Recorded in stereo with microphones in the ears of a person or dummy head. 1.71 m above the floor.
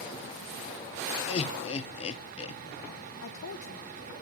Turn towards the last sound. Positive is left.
turn(degrees=75)  # may be behind; listen again after turning